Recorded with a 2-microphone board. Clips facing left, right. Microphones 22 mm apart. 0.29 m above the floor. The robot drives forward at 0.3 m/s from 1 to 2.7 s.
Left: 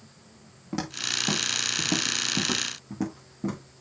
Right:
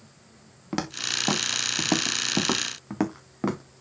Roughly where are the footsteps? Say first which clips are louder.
Right 1 dB; right.